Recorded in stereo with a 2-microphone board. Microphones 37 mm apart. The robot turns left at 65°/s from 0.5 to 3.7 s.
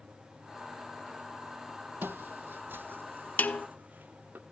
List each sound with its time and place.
2.0 s footsteps: 75° right (ahead or behind), 0.5 m; by 4.4 s 55° right (ahead or behind), 1.4 m
3.4 s a snare drum: 55° left (ahead or behind), 1.1 m; by 3.7 s 40° left (ahead or behind), 1.1 m